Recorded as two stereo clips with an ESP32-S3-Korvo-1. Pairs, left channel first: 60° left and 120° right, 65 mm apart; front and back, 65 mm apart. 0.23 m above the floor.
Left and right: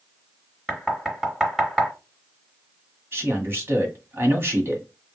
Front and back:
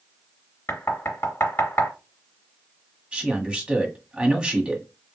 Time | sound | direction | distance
0.7 | knocking | 35° right | 1.6 m
3.1 | a man speaking | 115° right | 1.5 m